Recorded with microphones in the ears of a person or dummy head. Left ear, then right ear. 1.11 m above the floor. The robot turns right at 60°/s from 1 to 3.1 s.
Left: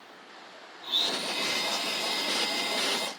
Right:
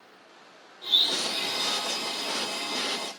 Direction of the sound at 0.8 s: 30° right.